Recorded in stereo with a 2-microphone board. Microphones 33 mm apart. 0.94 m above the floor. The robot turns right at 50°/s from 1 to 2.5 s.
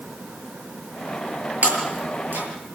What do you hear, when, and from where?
1.6 s breaking glass: 60° right (ahead or behind), 7.5 m; by 2.5 s 75° right (ahead or behind), 7.5 m